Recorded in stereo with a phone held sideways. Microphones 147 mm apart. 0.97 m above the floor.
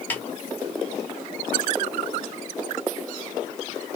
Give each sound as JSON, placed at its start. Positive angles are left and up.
{"t": 0.1, "sound": "a snare drum", "side_deg": 15, "distance_m": 1.0}